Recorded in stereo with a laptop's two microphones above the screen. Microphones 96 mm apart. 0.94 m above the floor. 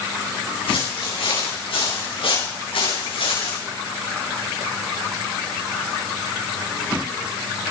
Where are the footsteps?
80° left, 9 m; by 3.6 s 85° left, 7.5 m.